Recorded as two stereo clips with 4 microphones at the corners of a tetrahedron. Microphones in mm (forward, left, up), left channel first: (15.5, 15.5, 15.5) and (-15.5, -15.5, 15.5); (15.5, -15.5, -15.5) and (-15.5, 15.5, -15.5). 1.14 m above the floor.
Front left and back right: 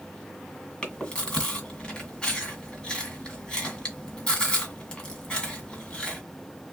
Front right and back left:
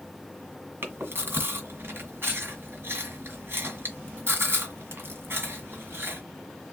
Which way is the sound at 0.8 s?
110° left.